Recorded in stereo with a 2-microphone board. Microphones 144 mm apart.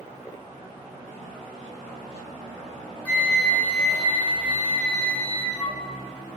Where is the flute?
10° left (ahead or behind), 0.8 m.